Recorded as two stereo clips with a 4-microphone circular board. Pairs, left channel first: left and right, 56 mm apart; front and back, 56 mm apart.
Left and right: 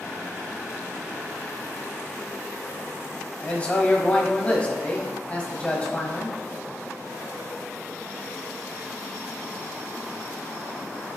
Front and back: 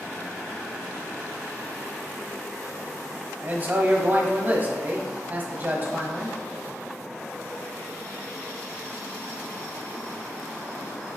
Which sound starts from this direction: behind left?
A man speaking, at 3.4 s.